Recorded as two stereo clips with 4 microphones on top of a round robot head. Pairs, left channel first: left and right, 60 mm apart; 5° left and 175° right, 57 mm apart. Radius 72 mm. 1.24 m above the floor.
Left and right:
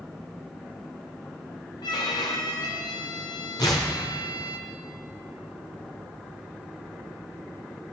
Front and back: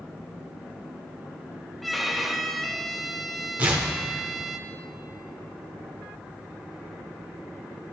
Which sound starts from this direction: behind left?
Tearing paper, at 3.6 s.